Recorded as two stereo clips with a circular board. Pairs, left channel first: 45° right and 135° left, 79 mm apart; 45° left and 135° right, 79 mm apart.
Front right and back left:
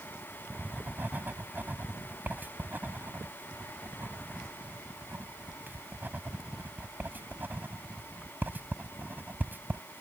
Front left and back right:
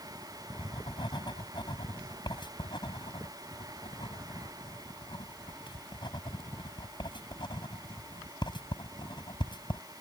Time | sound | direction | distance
0.5 | writing | 65° left | ?